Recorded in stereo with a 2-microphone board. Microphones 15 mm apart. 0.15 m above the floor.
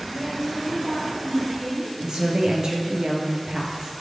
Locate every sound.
0.1 s a woman speaking: 40° right (ahead or behind), 4.5 m; by 1.9 s 25° right (ahead or behind), 6 m
2.0 s a woman speaking: 60° right (ahead or behind), 2.5 m